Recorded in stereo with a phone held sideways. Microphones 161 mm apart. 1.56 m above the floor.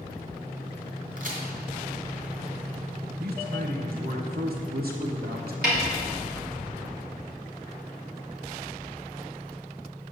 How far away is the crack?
About 3 m.